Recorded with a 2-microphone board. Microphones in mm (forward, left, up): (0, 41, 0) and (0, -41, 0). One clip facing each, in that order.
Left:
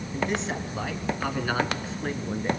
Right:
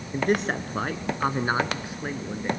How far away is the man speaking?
About 2.5 m.